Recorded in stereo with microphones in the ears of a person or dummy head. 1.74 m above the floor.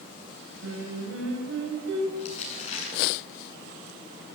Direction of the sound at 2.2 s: 40° left (ahead or behind).